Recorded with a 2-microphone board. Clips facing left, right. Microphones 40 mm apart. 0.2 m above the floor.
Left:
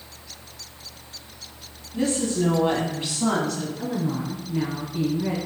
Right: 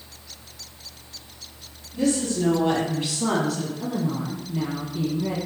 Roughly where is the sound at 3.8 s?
Left.